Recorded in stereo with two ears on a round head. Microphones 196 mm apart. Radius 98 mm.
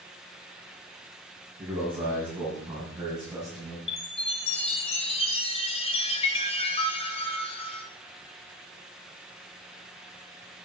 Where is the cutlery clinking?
I don't hear cutlery clinking.